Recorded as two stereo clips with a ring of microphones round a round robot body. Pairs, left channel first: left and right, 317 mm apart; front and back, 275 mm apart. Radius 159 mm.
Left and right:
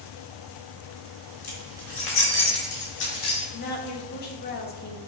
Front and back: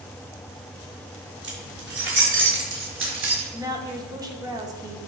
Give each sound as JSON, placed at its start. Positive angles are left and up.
{"t": 1.4, "sound": "keys jangling", "azimuth_deg": 130, "distance_m": 3.5}
{"t": 3.5, "sound": "a woman speaking", "azimuth_deg": 115, "distance_m": 1.4}